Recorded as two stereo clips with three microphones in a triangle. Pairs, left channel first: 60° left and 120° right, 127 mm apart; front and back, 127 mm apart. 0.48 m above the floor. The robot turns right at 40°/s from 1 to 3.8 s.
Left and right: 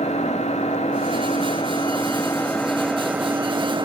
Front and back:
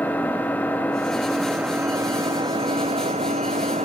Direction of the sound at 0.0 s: 75° left.